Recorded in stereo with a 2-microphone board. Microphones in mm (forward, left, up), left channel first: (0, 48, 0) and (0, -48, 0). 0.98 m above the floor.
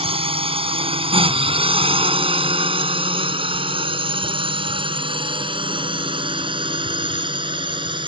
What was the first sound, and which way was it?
A drone, 75° right (ahead or behind).